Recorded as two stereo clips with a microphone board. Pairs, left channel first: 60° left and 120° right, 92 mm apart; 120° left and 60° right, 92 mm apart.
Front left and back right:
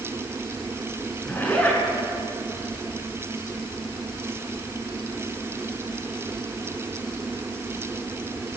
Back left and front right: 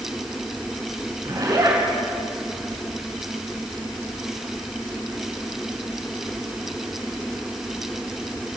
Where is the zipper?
10° right, 7 m.